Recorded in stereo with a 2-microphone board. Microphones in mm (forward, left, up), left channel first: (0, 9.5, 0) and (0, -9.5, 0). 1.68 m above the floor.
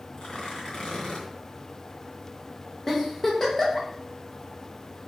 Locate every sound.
0.2 s tearing paper: 55° left (ahead or behind), 2.5 m
2.9 s a giggle: 20° left (ahead or behind), 1.7 m